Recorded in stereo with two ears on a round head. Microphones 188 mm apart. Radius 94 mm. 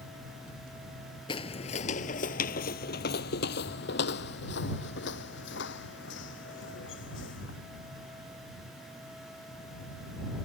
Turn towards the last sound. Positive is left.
turn(degrees=65)  # may be behind; listen again after turning